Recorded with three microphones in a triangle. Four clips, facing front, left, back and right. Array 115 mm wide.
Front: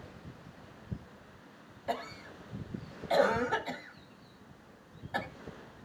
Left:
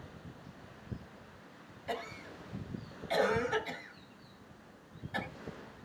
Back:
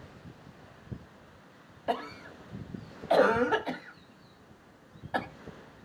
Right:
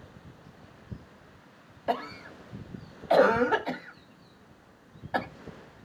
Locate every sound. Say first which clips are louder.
1.9 s a cough: right 9 dB, back 4 dB; 115° right, 1.1 m